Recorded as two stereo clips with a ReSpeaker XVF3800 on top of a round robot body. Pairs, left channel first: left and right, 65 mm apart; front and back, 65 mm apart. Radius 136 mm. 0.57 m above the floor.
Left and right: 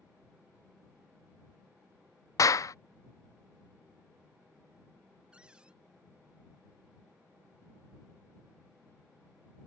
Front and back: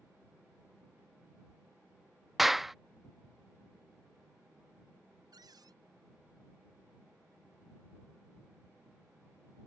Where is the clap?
95° left.